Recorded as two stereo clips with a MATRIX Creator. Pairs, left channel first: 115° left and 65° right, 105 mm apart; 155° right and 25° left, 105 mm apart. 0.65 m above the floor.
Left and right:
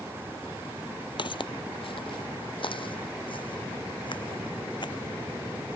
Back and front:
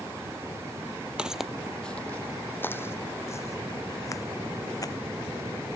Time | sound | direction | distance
1.2 | footsteps | 100° left | ?